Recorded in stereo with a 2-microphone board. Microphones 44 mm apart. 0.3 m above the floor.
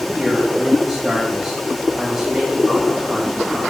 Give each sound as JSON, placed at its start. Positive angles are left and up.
{"t": 0.1, "sound": "a man speaking", "side_deg": -15, "distance_m": 1.7}